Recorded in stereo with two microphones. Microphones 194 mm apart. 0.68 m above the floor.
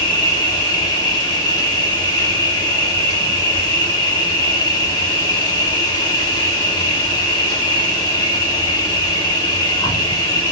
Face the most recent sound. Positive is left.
turn(degrees=20)  # may be behind; listen again after turning